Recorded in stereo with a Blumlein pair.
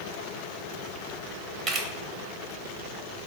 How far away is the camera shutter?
About 0.8 m.